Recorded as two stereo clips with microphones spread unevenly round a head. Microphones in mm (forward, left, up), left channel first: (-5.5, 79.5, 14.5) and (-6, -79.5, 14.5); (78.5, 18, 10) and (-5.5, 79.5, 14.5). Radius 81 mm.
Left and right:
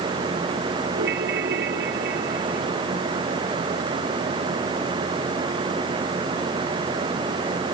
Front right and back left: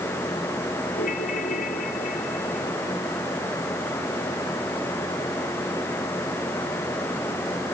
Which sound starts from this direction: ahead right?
A ringtone, at 1.0 s.